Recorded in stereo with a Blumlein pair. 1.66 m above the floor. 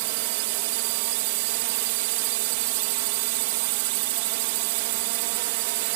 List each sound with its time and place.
0.0 s a drone: 50° right